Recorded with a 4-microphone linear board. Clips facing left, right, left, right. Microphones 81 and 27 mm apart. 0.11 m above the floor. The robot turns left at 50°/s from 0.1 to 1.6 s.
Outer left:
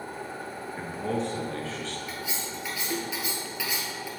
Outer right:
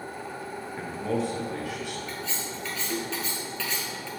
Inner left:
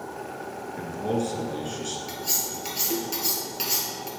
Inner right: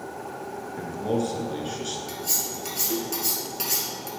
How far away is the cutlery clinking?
About 1.2 m.